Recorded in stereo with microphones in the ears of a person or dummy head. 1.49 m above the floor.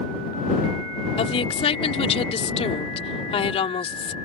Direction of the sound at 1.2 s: 35° left (ahead or behind).